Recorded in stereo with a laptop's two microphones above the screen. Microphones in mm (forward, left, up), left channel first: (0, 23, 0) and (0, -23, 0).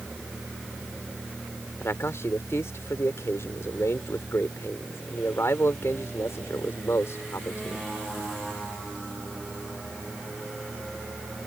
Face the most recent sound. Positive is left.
turn(degrees=75)  # may be behind; listen again after turning